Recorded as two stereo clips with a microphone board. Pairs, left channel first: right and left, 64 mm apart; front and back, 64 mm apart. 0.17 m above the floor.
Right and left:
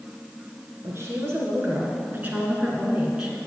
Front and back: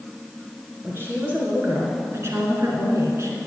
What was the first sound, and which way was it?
A woman speaking, 130° left.